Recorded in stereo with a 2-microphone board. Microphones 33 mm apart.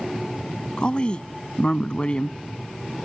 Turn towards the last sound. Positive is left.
turn(degrees=35)  # may be behind; listen again after turning